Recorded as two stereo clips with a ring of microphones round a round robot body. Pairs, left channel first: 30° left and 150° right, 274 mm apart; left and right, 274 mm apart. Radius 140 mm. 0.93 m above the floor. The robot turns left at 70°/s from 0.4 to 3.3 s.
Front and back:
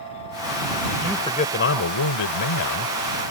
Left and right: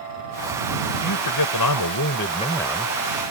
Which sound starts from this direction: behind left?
A man speaking, at 1.0 s.